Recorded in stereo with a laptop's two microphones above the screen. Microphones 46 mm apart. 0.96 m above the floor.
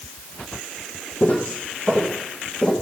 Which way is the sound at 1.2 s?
40° left (ahead or behind).